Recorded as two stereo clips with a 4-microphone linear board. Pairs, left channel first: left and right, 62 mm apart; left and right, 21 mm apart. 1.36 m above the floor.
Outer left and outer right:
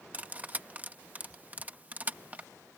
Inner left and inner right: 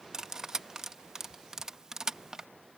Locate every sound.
0.1 s cutlery clinking: 30° right (ahead or behind)